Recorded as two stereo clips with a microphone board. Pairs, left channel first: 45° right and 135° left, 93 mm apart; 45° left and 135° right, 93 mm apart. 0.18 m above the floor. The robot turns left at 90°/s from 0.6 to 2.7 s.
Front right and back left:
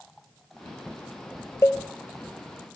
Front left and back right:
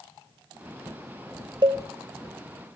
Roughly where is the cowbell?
Right.